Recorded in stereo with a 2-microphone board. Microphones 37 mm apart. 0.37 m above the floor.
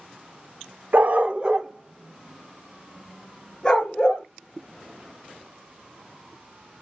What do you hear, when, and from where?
0.9 s a dog barking: 55° right (ahead or behind), 0.6 m; by 4.3 s 20° left (ahead or behind), 1.8 m